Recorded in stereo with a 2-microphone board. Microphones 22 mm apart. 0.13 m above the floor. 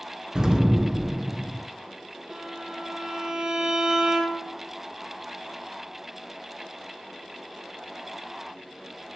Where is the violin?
35° right (ahead or behind), 1.8 m.